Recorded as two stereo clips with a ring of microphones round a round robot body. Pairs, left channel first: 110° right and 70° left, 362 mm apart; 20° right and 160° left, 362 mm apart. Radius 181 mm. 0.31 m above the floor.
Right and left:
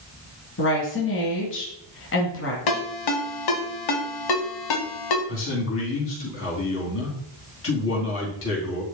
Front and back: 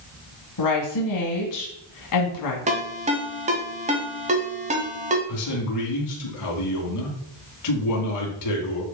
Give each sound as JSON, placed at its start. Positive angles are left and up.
{"t": 0.6, "sound": "a woman speaking", "azimuth_deg": -55, "distance_m": 2.0}
{"t": 2.7, "sound": "a ringtone", "azimuth_deg": -130, "distance_m": 1.7}
{"t": 5.3, "sound": "a man speaking", "azimuth_deg": -60, "distance_m": 3.0}